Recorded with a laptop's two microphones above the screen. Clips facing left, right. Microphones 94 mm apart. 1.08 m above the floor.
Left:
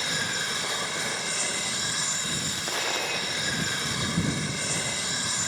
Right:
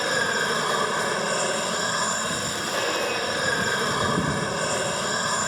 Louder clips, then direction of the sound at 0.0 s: Right 8 dB; 45° right (ahead or behind).